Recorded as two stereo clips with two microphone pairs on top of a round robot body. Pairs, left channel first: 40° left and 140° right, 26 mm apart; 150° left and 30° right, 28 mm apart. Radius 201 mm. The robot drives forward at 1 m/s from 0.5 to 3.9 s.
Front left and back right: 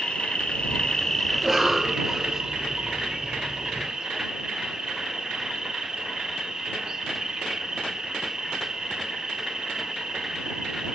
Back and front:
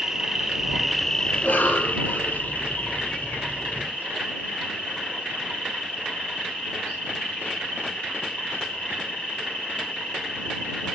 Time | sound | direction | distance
0.0 | an insect | 20° left | 1.2 m
1.3 | a cough | 125° left | 5 m